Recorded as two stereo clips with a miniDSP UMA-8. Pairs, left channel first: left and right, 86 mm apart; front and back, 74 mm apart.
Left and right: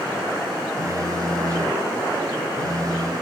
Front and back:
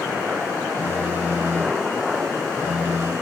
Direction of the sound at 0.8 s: 125° right.